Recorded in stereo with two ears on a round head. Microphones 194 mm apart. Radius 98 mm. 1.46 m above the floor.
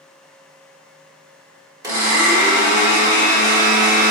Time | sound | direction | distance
1.8 | a blender | 20° right (ahead or behind) | 1.1 m